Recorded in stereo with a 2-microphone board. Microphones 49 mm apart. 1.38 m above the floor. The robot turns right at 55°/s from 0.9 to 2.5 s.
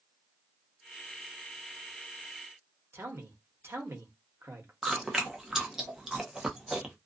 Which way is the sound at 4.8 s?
10° right (ahead or behind).